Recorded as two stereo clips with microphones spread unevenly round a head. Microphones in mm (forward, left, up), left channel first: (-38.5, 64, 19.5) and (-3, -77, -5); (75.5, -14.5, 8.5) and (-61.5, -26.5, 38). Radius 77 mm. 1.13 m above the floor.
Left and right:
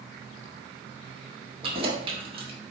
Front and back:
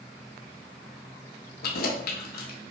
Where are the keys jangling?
15° right, 0.8 m.